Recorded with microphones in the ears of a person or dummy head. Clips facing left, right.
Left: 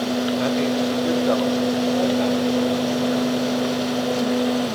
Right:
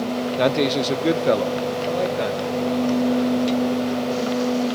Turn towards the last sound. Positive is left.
turn(degrees=-25)  # may be behind; listen again after turning